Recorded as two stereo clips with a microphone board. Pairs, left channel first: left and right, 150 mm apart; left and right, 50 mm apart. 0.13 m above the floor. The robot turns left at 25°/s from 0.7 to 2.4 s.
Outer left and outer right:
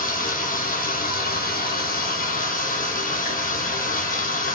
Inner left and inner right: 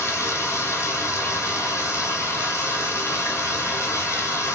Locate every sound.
0.0 s running water: 110° left, 1.3 m; by 4.5 s 70° left, 1.3 m